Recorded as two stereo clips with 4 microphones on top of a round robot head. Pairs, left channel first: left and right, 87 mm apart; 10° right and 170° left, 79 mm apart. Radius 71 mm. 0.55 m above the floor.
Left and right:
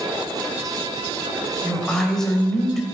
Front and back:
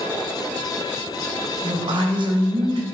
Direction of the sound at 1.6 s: 175° left.